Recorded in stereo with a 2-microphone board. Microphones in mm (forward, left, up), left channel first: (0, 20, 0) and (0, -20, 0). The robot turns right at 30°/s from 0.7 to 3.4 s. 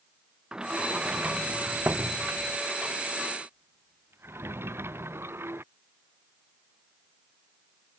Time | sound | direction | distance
0.5 | a sliding door | 20° right (ahead or behind) | ?